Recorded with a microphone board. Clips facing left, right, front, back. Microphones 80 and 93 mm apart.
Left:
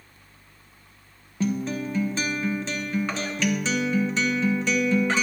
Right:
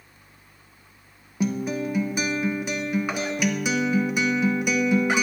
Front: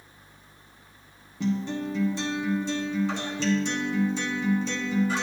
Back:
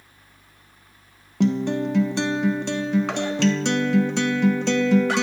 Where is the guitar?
165° right, 0.6 m.